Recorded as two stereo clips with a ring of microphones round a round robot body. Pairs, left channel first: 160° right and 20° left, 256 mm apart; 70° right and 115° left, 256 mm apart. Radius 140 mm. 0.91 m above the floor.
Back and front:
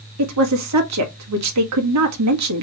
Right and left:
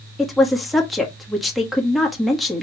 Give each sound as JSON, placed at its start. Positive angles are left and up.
{"t": 0.2, "sound": "a woman speaking", "azimuth_deg": 25, "distance_m": 1.6}